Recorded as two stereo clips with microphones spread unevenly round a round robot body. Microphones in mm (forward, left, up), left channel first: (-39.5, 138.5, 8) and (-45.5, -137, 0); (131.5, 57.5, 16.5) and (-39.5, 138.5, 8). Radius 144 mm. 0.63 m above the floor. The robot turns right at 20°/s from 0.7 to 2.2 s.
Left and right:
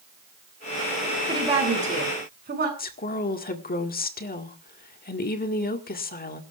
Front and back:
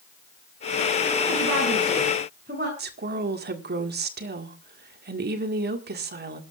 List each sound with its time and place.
1.3 s a woman speaking: 165° right, 7.5 m; by 2.7 s 145° right, 7.5 m
2.8 s a woman speaking: 145° left, 2.0 m